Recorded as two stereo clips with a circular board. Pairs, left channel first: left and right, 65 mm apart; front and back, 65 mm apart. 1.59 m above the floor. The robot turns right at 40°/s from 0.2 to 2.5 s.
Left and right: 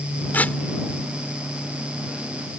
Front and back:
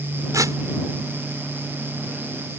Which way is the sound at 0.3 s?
150° left.